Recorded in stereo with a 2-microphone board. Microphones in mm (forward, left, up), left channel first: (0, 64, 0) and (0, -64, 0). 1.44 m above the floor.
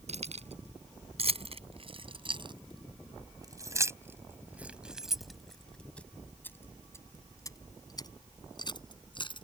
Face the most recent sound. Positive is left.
turn(degrees=40)  # may be behind; listen again after turning